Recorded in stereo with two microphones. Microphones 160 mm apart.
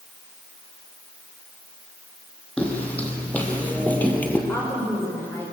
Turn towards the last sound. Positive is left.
turn(degrees=15)  # may be behind; listen again after turning